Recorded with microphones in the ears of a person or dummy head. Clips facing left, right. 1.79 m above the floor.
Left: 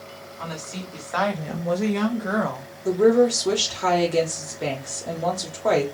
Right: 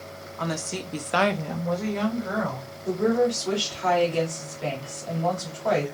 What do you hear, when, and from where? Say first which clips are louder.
0.4 s a woman speaking: right 5 dB; 65° right (ahead or behind), 1.2 m; by 2.7 s 70° left (ahead or behind), 1.4 m
2.9 s a woman speaking: left 5 dB; 60° left (ahead or behind), 1.2 m